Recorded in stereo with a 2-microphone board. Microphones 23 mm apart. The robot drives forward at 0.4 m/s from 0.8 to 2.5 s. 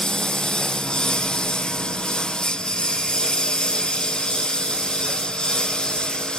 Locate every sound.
0.0 s a lawn mower: 35° left (ahead or behind); by 6.4 s 30° left (ahead or behind)